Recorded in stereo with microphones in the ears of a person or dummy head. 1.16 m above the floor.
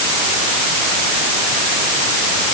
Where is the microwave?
No microwave in this recording.